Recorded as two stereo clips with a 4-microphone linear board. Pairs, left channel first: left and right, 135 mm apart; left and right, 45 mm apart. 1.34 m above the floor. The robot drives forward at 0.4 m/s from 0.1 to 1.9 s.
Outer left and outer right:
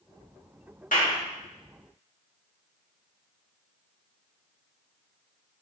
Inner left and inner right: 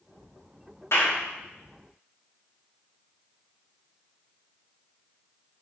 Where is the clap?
70° left (ahead or behind), 2.5 m.